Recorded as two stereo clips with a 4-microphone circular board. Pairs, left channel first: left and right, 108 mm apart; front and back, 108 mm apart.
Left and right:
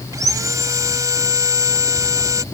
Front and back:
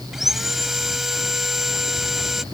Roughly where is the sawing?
Right.